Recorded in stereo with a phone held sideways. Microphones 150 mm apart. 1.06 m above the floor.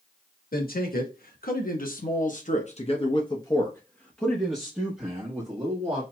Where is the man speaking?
80° left, 1.5 m; by 6.0 s 20° right (ahead or behind), 1.8 m.